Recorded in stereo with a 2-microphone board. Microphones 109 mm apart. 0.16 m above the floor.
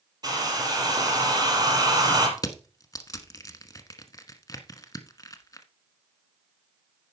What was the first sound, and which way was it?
A hair dryer, 40° right (ahead or behind).